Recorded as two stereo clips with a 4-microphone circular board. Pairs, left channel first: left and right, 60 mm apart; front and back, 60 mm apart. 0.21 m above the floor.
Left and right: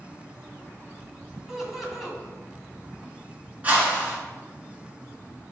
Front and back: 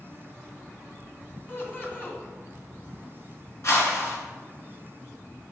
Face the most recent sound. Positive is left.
turn(degrees=-30)